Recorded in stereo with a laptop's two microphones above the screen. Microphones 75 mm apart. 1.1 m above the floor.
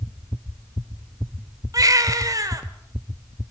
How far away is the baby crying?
About 2.5 m.